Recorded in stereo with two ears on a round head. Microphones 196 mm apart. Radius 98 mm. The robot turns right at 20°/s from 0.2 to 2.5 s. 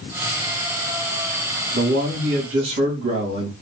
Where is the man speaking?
70° right (ahead or behind), 1.5 m; by 3.5 s 65° right (ahead or behind), 1.5 m.